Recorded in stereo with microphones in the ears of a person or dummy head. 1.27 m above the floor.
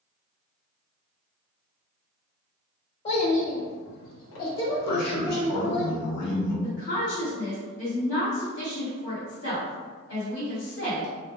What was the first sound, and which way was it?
A child speaking, 35° left (ahead or behind).